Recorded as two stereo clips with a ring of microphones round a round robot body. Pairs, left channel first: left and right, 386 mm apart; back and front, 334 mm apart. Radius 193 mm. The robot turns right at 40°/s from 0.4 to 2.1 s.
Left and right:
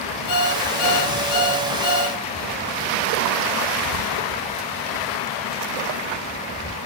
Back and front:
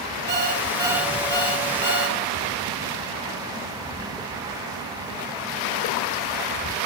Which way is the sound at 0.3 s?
60° left.